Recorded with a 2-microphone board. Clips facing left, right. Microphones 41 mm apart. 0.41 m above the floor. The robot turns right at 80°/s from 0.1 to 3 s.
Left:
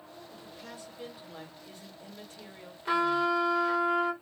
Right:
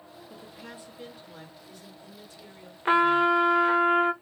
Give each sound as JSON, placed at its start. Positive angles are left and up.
{"t": 0.3, "sound": "a woman speaking", "azimuth_deg": -55, "distance_m": 1.8}
{"t": 2.9, "sound": "a trumpet", "side_deg": -45, "distance_m": 0.7}